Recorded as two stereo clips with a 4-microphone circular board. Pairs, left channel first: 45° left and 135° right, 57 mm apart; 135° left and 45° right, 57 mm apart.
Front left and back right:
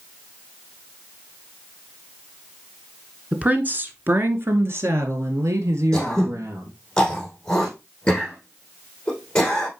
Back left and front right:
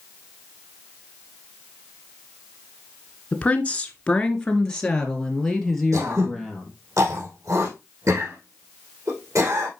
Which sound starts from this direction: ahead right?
Throat clearing, at 5.9 s.